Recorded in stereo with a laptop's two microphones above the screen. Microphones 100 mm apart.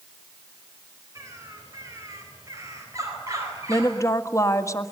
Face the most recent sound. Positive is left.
turn(degrees=30)  # may be behind; listen again after turning